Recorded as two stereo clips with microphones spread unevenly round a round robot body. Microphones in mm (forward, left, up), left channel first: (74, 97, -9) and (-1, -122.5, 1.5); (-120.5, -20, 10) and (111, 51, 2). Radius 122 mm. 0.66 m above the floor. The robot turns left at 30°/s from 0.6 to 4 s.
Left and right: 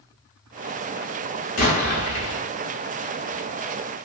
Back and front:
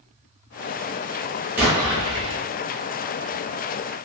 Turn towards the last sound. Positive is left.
turn(degrees=25)